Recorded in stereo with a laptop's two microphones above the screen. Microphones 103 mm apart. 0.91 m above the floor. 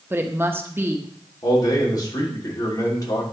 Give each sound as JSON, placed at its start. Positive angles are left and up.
{"t": 0.1, "sound": "a woman speaking", "side_deg": -25, "distance_m": 0.8}
{"t": 1.4, "sound": "a man speaking", "side_deg": 40, "distance_m": 3.0}